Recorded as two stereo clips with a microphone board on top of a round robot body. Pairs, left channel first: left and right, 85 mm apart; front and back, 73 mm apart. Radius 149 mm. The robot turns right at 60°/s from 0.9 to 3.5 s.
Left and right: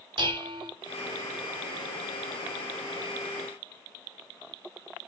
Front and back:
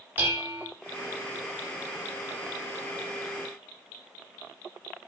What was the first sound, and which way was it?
Dishes clattering, 120° right.